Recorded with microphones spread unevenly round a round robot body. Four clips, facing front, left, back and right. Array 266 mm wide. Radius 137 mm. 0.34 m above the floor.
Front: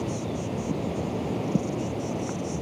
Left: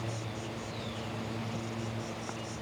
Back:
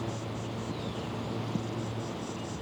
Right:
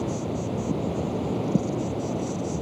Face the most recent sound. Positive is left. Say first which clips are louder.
# right 11 dB, front 6 dB
turn(degrees=-60)